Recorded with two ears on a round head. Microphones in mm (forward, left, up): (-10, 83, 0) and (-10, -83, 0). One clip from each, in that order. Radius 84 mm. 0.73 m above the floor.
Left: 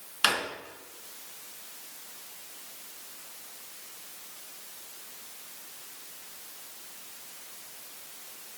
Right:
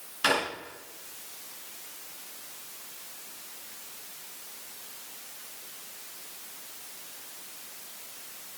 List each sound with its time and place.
0.2 s a drawer: 35° left (ahead or behind), 4 m